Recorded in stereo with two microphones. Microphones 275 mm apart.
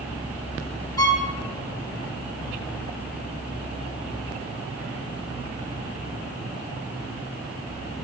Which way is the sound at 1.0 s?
15° left (ahead or behind).